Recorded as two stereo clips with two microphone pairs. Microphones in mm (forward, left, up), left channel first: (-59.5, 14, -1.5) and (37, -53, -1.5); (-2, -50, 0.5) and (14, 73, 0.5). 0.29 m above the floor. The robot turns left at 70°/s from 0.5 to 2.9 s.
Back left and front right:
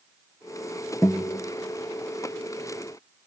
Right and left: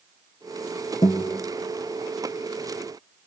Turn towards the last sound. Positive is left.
turn(degrees=90)